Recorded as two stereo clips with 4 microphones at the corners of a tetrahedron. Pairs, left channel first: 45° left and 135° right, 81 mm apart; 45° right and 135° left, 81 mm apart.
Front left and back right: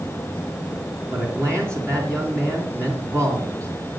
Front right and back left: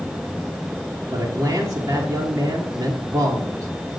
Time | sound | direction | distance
1.1 | a man speaking | 175° left | 2 m